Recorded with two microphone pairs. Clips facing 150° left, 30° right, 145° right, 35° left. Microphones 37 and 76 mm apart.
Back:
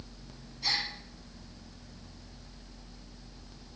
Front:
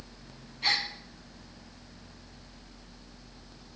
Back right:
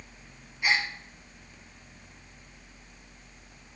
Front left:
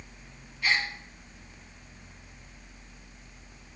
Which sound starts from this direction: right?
A gasp, at 0.6 s.